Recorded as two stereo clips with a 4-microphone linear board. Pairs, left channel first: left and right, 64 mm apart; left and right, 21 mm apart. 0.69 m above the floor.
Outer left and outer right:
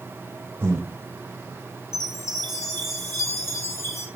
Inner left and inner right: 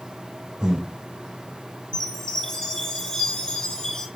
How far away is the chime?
About 1.8 m.